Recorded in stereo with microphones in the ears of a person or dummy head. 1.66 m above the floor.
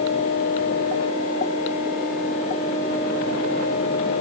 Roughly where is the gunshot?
No gunshot in this recording.